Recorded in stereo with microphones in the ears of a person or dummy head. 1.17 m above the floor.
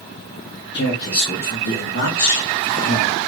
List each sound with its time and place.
0.7 s a man speaking: 55° left (ahead or behind), 1.0 m; by 3.2 s 50° left (ahead or behind), 1.6 m